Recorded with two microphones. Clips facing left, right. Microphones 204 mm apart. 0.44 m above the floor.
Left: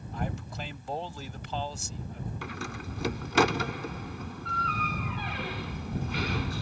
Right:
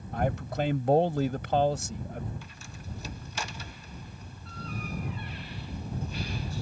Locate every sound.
0.1 s a man speaking: 65° right (ahead or behind)
2.4 s a door slam: 75° left (ahead or behind)